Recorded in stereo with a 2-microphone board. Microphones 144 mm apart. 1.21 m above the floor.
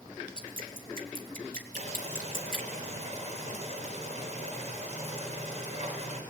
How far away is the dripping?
About 2.5 m.